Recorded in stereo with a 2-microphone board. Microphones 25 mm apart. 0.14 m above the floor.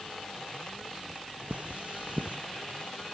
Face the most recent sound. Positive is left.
turn(degrees=-70)  # may be behind; listen again after turning